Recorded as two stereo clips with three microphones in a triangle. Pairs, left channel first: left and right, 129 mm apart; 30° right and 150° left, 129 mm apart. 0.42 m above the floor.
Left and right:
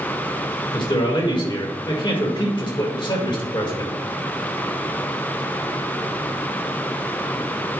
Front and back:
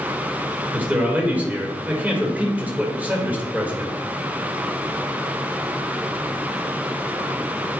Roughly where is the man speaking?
Left.